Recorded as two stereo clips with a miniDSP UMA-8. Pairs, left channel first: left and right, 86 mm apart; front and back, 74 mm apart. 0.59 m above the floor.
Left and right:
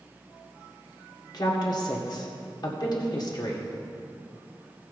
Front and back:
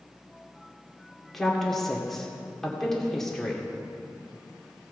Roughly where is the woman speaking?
Left.